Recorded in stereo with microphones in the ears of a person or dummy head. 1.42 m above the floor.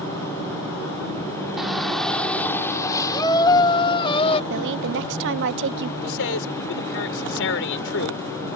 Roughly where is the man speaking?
Left.